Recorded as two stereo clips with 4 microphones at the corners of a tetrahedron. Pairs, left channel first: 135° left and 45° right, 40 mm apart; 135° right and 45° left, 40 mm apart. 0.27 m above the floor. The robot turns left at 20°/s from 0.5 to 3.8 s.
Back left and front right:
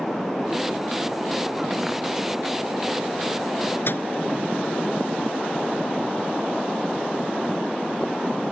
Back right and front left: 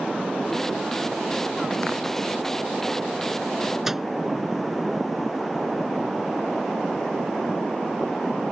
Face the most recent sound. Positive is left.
turn(degrees=130)